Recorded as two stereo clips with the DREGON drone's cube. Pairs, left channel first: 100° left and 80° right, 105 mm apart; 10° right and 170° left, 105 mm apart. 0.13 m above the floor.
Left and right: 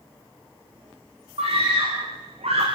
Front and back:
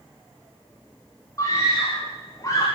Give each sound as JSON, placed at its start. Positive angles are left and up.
{"t": 1.4, "sound": "a scream", "azimuth_deg": -70, "distance_m": 7.0}